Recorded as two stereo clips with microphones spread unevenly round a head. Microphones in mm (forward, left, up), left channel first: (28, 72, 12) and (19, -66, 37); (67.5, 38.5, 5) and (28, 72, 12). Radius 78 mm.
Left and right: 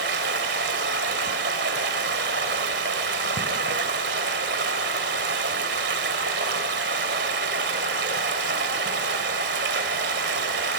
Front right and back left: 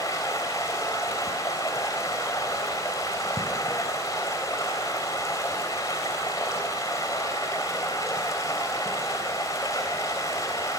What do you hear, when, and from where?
0.0 s running water: 100° right, 3.5 m